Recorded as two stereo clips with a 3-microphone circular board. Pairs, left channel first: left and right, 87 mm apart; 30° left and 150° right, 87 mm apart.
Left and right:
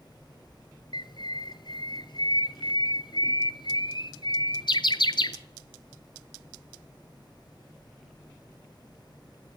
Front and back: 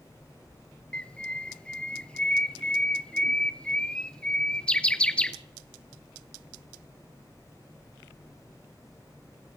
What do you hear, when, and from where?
0.9 s a bird: 105° left, 1.1 m